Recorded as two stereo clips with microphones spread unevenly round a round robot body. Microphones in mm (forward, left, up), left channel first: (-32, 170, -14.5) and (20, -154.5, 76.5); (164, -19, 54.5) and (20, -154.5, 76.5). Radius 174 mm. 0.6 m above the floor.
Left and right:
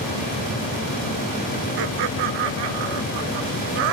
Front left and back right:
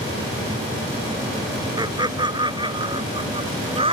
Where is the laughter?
70° right; by 4.0 s 75° right.